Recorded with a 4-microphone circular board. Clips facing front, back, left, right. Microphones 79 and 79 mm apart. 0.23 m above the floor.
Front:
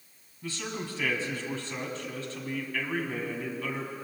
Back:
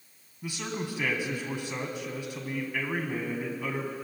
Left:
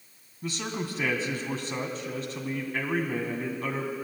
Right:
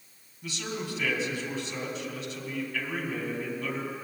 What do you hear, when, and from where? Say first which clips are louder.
0.4 s a man speaking: back 2 dB, left 2 dB; 110° left, 1.6 m